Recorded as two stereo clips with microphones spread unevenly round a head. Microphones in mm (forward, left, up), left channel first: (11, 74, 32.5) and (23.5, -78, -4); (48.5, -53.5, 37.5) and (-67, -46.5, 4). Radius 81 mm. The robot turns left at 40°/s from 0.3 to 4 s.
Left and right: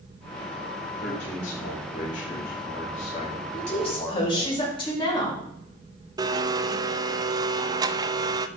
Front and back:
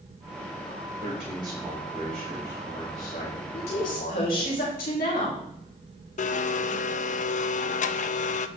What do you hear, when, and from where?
1.0 s a man speaking: 130° left, 5 m; by 4.5 s 10° left, 5 m
3.5 s a woman speaking: 50° left, 5 m; by 5.4 s 35° left, 5 m
6.2 s a blender: 20° right, 0.7 m